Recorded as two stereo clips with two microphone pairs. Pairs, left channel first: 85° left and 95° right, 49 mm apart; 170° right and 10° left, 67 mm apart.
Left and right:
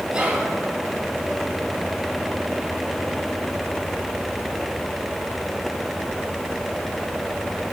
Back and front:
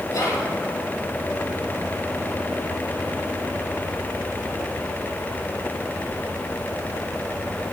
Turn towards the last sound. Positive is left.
turn(degrees=-160)